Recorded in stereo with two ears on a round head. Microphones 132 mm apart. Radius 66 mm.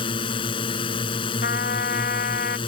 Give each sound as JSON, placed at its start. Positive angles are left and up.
{"t": 0.0, "sound": "a drone", "side_deg": 35}
{"t": 1.4, "sound": "a trumpet", "side_deg": 65}